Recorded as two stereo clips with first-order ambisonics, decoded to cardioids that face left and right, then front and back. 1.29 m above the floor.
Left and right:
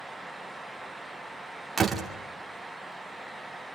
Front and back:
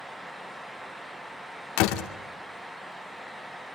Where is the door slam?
15° right, 2 m.